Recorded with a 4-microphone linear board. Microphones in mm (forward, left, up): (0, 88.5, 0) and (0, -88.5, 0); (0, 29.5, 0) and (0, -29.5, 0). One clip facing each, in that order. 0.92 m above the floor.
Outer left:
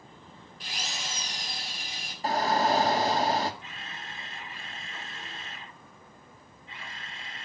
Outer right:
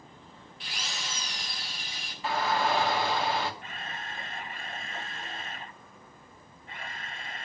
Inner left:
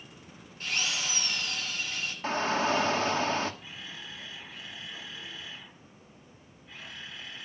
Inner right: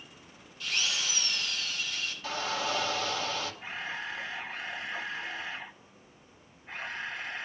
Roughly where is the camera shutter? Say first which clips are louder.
Outer right 3 dB, inner right 7 dB; right.